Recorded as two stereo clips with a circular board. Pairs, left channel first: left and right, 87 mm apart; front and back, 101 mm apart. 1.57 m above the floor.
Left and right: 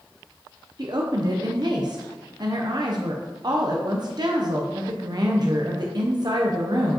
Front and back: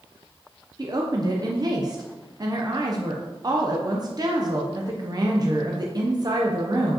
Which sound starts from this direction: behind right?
A woman speaking, at 0.8 s.